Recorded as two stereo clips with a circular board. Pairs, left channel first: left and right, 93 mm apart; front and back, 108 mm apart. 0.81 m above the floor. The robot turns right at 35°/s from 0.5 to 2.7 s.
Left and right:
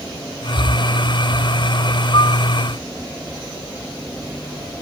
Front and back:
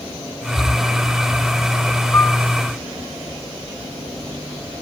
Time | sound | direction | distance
2.1 | a piano | 65° left | 0.8 m